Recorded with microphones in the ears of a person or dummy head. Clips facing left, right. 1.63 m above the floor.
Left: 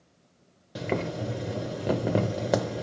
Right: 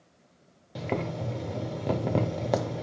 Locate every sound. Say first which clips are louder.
0.8 s boiling: left 2 dB; 10° left (ahead or behind), 0.5 m